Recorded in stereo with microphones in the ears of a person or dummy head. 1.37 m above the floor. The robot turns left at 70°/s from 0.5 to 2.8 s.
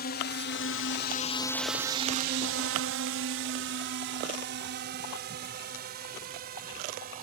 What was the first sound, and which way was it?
A drone, 45° left (ahead or behind).